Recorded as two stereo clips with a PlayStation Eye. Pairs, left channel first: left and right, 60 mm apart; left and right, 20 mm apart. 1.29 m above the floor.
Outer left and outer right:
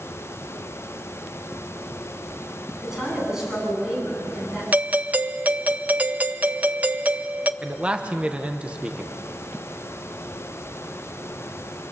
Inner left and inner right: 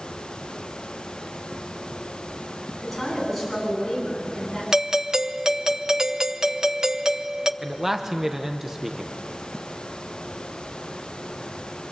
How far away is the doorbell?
About 0.6 m.